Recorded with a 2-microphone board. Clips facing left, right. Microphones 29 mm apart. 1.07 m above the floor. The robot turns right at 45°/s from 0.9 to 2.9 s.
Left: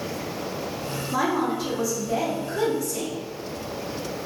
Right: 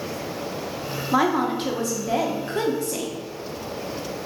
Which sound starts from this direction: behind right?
A woman speaking, at 1.1 s.